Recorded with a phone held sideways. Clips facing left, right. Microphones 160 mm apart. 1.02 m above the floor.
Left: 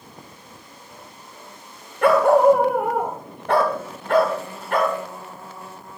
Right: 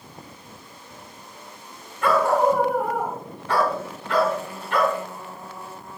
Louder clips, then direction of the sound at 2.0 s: Left 5 dB; 70° left (ahead or behind).